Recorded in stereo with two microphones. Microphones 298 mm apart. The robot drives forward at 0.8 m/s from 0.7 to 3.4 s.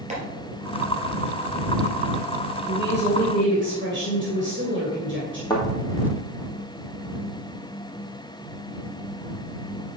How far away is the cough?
No cough in this recording.